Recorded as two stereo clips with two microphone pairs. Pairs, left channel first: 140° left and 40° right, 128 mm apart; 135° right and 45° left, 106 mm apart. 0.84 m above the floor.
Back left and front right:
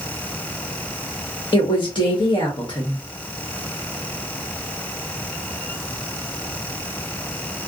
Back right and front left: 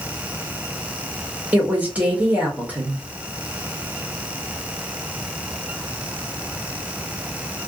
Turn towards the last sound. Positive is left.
turn(degrees=115)